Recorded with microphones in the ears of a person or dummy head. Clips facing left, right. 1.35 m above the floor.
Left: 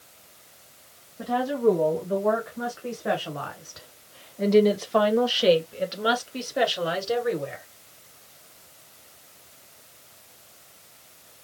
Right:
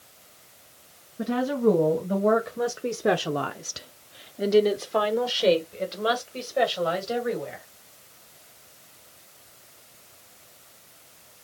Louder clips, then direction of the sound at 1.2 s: Even; 25° right (ahead or behind).